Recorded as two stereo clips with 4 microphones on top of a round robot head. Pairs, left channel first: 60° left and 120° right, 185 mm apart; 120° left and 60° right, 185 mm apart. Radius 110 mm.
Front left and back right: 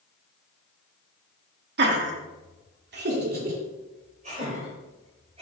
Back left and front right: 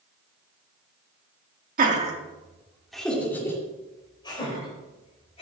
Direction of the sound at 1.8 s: 95° right.